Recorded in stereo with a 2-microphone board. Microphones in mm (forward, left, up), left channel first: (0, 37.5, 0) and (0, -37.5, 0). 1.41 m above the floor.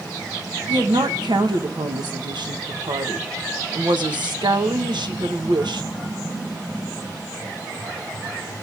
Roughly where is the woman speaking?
Right.